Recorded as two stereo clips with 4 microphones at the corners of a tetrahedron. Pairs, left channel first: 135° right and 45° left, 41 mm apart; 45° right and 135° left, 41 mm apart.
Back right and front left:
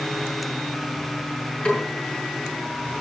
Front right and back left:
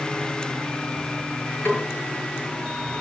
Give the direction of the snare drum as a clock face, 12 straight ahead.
3 o'clock.